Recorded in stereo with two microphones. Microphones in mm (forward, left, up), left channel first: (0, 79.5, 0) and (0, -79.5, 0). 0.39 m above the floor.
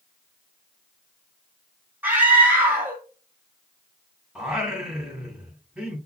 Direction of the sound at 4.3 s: 5° right (ahead or behind).